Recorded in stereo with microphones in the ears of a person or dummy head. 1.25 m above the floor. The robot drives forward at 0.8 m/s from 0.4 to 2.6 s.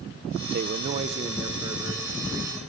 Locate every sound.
0.5 s a man speaking: 45° right (ahead or behind), 0.8 m; by 2.6 s 15° right (ahead or behind), 2 m